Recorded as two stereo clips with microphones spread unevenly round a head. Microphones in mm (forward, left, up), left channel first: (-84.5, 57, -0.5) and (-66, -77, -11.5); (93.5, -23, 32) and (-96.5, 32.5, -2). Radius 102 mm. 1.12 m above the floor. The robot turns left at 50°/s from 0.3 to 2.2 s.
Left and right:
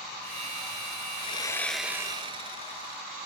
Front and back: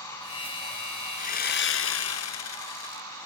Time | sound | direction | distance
1.2 | sawing | 40° left | ?